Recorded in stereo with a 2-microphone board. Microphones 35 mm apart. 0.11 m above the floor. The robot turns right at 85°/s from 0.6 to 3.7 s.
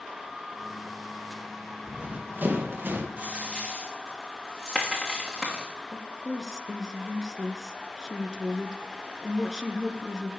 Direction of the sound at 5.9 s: 20° right (ahead or behind).